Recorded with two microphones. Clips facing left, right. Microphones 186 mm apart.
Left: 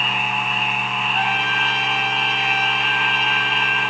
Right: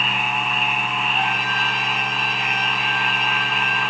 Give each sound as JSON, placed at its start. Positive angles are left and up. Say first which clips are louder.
{"t": 1.1, "sound": "a trumpet", "louder": "left 1 dB", "side_deg": 35, "distance_m": 7.5}